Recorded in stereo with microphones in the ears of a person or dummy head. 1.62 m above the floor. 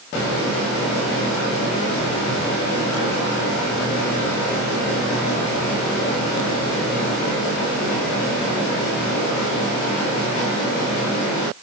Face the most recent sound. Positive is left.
No sound to turn to.